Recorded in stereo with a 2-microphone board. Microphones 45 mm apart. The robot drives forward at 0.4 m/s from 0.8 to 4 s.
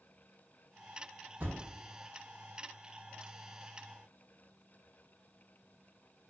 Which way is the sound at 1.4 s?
40° right (ahead or behind).